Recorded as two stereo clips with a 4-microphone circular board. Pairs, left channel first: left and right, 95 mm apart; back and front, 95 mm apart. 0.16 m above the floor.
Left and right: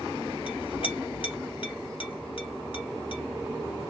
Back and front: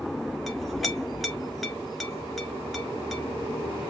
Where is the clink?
90° left, 1.4 m.